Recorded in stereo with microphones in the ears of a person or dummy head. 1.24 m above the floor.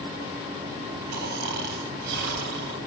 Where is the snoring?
50° right (ahead or behind), 2 m.